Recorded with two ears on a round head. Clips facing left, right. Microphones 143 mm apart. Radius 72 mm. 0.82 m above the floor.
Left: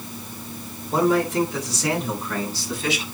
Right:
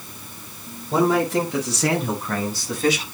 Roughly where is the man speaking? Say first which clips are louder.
Right 1 dB; right.